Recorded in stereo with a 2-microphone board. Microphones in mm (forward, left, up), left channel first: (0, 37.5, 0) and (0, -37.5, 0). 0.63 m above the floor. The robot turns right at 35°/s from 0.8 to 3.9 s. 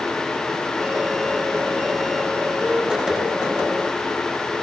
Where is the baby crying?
No baby crying in this recording.